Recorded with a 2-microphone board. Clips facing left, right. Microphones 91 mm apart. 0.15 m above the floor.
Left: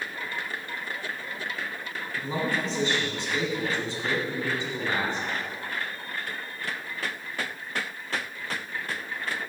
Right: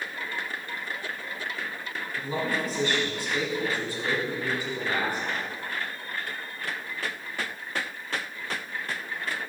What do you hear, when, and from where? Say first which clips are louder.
2.2 s a man speaking: left 1 dB; 25° left (ahead or behind), 1.4 m